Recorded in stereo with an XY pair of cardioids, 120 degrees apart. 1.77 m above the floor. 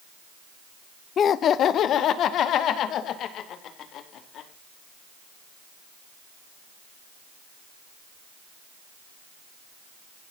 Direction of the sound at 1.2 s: 45° left.